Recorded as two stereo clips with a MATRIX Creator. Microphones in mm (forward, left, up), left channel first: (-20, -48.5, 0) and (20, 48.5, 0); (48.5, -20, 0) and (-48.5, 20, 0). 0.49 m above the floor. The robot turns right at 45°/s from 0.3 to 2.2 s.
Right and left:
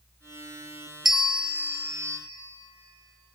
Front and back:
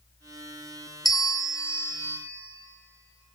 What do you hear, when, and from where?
1.1 s a bell: 15° right, 0.5 m; by 2.2 s 35° left, 0.5 m